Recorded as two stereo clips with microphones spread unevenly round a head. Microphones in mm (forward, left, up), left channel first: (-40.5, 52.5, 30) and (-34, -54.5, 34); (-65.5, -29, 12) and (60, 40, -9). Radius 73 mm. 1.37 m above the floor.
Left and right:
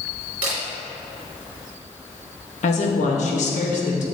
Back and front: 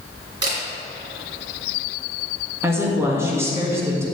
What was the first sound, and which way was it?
A camera shutter, 35° right.